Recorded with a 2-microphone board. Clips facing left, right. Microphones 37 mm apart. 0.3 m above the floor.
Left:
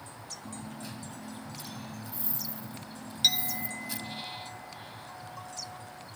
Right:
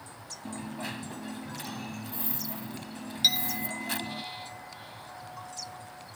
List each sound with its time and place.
0.5 s a dropped coin: 65° right (ahead or behind)
3.2 s a clink: 10° right (ahead or behind)